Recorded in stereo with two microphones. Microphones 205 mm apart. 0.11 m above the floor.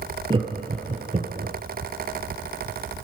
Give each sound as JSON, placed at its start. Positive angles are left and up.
{"t": 0.3, "sound": "laughter", "side_deg": -25, "distance_m": 2.5}